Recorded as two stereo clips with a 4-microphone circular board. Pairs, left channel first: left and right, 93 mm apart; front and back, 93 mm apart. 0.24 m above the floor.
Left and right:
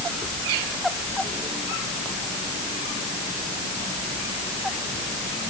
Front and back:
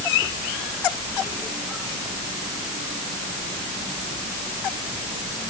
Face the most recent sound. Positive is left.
No sound to turn to.